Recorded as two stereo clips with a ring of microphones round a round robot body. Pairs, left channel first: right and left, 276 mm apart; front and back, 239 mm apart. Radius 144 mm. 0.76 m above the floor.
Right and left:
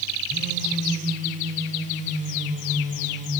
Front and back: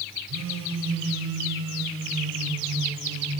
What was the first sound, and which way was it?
A phone buzzing, 155° left.